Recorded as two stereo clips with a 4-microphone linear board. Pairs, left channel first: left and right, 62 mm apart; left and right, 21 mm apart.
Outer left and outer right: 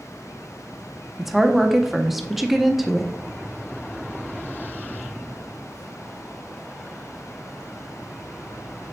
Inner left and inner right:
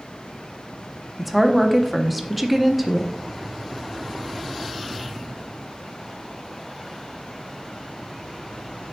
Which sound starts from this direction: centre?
A woman speaking, at 1.2 s.